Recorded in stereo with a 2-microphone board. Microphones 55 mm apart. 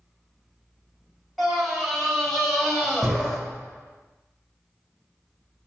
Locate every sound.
1.4 s a scream: centre (ahead or behind), 3.5 m; by 3.4 s 5° left (ahead or behind), 1.7 m